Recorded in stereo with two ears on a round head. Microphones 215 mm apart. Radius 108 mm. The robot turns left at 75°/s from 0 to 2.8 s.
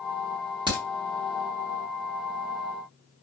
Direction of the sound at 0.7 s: 20° right (ahead or behind).